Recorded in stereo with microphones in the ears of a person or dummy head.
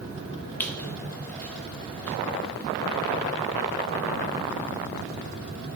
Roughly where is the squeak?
Centre.